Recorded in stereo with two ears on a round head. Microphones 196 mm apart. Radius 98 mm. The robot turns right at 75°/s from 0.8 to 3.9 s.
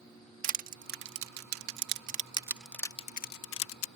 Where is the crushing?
40° right (ahead or behind); by 3.9 s 70° left (ahead or behind).